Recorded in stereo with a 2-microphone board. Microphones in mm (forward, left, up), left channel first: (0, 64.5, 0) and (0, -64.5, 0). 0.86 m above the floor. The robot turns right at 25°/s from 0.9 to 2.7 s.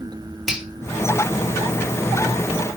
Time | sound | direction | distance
0.5 | a finger snap | 5° right (ahead or behind) | 1.8 m